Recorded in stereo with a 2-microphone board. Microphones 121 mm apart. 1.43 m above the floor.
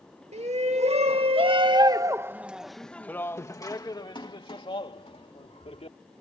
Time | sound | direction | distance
0.3 | a shout | 65° right (ahead or behind) | ?